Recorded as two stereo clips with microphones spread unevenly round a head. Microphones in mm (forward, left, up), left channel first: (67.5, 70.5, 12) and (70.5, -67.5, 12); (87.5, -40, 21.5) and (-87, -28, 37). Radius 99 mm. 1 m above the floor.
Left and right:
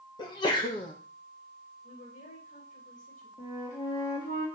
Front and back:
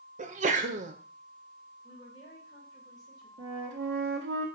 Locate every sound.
0.2 s a sneeze: 140° left, 1.0 m
1.8 s a woman speaking: 65° left, 4 m
3.4 s a flute: 145° left, 1.8 m